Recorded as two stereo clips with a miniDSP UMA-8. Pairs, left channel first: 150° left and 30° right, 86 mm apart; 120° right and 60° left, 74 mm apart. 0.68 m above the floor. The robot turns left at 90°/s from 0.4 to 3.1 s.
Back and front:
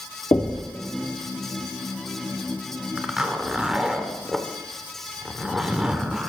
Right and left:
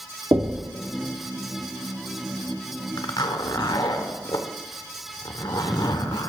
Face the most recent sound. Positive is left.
turn(degrees=-110)